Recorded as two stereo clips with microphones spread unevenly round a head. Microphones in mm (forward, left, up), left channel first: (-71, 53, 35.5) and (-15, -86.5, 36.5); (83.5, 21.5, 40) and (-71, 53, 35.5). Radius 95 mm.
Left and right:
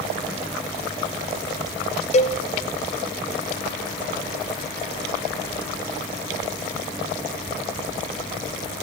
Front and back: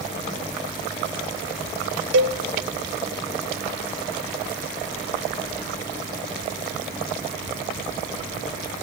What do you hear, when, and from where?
2.1 s a cowbell: 160° left, 0.6 m